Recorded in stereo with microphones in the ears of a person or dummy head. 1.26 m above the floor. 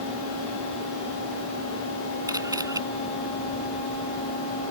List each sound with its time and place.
2.3 s a camera shutter: 20° right (ahead or behind)